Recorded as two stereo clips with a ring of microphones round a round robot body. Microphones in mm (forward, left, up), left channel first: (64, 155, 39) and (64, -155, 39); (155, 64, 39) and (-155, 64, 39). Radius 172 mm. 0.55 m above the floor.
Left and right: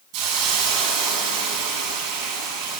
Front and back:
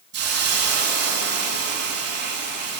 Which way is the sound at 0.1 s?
120° right.